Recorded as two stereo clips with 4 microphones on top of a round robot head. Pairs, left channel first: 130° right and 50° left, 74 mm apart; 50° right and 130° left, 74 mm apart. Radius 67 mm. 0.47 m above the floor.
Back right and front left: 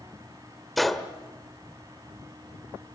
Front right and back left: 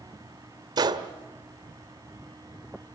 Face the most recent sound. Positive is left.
turn(degrees=140)